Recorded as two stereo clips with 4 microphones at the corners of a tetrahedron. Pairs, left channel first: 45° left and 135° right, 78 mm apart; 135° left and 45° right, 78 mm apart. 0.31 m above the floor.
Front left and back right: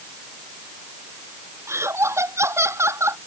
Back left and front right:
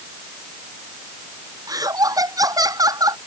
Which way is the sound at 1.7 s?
80° right.